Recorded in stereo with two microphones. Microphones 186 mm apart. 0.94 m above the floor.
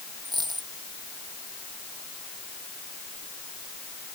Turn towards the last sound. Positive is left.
turn(degrees=-25)  # may be behind; listen again after turning